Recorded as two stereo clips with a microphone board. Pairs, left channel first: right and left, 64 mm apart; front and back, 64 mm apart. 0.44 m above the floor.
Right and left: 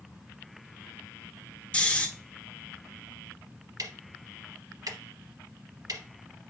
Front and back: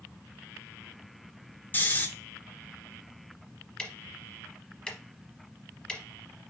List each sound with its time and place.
1.7 s snoring: 30° right, 0.8 m
3.8 s ticking: 75° left, 0.8 m